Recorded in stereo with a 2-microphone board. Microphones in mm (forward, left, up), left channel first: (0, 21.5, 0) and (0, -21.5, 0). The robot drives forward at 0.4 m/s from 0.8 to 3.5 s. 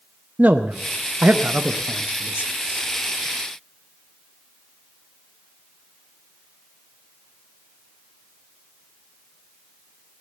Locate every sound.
0.4 s a man speaking: 40° right (ahead or behind), 0.6 m; by 2.9 s 20° right (ahead or behind), 1.0 m